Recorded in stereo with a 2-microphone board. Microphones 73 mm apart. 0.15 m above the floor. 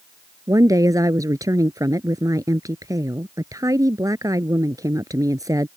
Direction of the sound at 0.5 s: 50° right (ahead or behind).